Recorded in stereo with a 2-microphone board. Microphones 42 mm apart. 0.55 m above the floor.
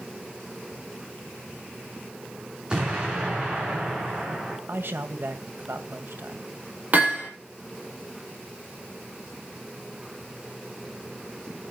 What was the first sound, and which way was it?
An explosion, 20° right (ahead or behind).